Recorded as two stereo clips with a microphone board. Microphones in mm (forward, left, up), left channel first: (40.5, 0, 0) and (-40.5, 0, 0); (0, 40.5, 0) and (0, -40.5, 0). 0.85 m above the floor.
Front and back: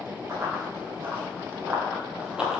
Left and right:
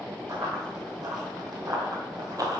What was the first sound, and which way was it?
Running footsteps, 125° right.